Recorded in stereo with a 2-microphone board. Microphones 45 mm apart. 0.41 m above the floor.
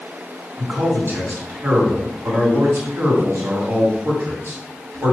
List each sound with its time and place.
0.6 s a man speaking: 55° right (ahead or behind), 3 m